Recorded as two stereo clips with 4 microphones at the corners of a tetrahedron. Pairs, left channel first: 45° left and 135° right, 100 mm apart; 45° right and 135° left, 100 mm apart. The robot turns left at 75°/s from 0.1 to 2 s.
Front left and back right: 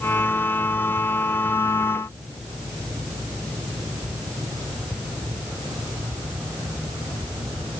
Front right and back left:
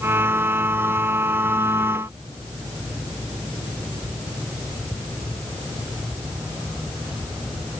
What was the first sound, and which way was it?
Only background noise.